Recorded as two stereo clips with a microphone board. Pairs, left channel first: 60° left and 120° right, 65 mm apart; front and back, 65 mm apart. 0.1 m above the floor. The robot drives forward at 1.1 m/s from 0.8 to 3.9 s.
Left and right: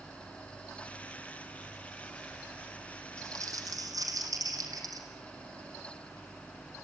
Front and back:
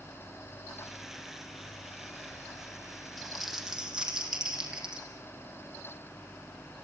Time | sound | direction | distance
3.2 | crumpling | 85° right | 3.5 m